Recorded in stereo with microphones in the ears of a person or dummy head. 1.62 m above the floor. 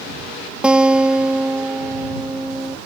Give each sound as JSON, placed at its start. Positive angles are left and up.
{"t": 0.6, "sound": "a guitar", "side_deg": -5}